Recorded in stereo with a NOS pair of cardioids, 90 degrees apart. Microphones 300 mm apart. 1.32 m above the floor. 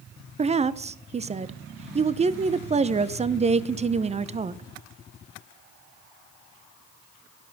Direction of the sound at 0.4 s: 20° right.